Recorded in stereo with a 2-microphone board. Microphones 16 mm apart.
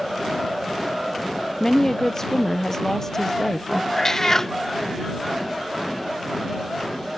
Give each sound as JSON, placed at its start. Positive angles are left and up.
{"t": 1.6, "sound": "a woman speaking", "side_deg": 30}
{"t": 3.9, "sound": "a cat meowing", "side_deg": 25}